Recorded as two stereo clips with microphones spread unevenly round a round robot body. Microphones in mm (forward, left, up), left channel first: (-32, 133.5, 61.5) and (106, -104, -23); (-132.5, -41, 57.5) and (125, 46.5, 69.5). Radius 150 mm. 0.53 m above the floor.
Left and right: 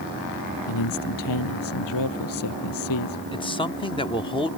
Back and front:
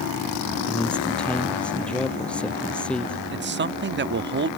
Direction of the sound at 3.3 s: 35° left.